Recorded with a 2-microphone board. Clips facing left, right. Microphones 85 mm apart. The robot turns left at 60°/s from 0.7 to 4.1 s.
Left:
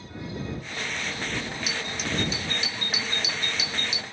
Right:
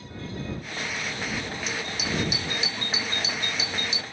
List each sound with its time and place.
1.7 s a doorbell: 10° left; by 4.0 s 130° right